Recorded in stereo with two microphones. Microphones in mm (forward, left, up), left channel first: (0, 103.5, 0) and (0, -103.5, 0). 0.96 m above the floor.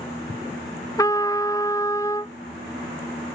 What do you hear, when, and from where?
1.0 s a trumpet: 15° left (ahead or behind)